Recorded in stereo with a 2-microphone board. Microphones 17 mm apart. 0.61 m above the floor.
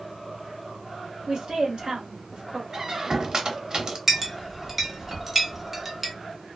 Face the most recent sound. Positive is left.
turn(degrees=-10)  # may be behind; listen again after turning